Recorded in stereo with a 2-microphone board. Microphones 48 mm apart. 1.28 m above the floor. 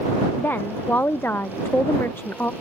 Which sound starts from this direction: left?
A woman speaking, at 0.4 s.